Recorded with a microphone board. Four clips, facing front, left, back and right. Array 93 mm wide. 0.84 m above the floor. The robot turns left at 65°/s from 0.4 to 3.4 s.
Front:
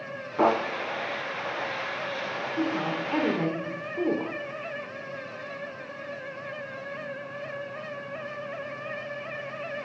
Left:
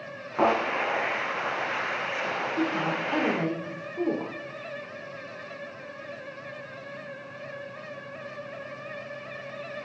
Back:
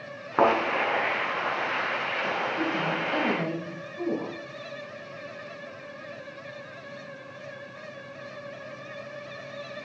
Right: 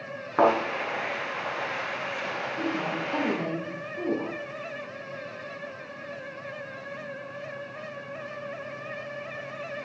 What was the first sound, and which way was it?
A thud, 150° right.